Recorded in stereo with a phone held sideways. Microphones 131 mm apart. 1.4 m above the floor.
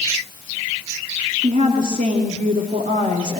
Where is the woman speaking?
80° right, 2.5 m.